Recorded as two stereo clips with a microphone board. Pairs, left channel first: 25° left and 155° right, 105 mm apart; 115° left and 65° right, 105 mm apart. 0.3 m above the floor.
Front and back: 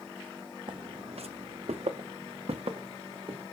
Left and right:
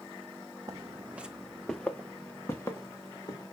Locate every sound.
0.7 s footsteps: 120° right, 0.8 m; by 3.4 s 170° left, 2.5 m